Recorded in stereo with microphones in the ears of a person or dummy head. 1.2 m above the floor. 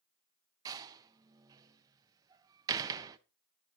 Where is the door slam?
20° right (ahead or behind), 0.7 m.